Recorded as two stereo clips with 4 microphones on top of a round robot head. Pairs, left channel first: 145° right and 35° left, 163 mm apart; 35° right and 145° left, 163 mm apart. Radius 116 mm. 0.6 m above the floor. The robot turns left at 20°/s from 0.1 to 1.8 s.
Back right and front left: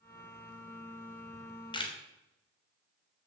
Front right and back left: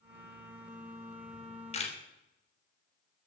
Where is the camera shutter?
75° right, 3 m; by 1.9 s 85° right, 3 m.